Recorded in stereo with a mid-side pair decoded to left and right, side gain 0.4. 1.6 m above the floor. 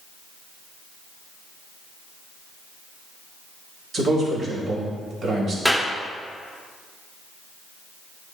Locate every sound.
3.9 s a man speaking: 55° right, 2.5 m
5.7 s a clap: 10° right, 1.0 m